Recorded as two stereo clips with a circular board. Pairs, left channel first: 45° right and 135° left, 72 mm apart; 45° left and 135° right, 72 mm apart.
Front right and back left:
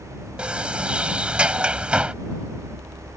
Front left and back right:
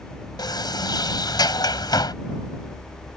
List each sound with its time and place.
0.4 s a sliding door: 60° left